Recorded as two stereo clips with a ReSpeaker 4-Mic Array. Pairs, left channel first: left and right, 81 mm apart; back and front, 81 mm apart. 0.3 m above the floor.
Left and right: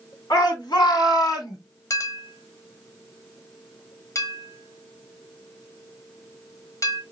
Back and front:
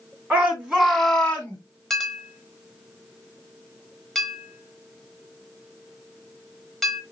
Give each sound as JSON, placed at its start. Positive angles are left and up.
{"t": 0.3, "sound": "a shout", "azimuth_deg": 65, "distance_m": 2.5}
{"t": 1.9, "sound": "a clink", "azimuth_deg": 95, "distance_m": 1.1}